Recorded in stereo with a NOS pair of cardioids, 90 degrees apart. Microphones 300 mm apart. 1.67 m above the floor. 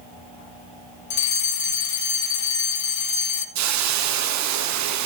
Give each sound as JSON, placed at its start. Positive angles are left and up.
{"t": 1.1, "sound": "a fire alarm", "azimuth_deg": 70, "distance_m": 2.5}
{"t": 3.5, "sound": "a hiss", "azimuth_deg": -70, "distance_m": 1.4}